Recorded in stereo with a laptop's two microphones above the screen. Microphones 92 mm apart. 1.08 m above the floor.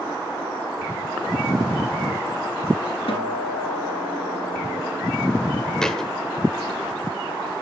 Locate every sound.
3.1 s a guitar: 70° left (ahead or behind), 2 m
5.8 s a thud: 5° left (ahead or behind), 2 m